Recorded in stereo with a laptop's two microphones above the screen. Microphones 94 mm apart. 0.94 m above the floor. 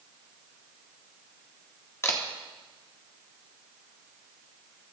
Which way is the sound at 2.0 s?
30° left (ahead or behind).